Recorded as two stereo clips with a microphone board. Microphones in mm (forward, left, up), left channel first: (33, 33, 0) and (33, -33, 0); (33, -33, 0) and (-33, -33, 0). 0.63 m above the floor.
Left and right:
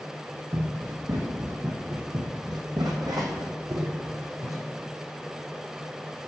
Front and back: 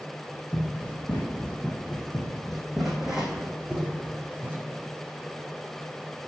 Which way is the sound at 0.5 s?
65° right.